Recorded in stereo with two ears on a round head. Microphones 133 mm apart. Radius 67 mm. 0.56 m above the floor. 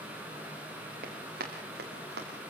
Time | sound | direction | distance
1.0 | running footsteps | 65° right (ahead or behind) | 5 m